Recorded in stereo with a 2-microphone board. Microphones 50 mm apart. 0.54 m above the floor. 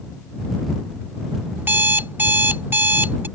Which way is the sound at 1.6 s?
45° right (ahead or behind).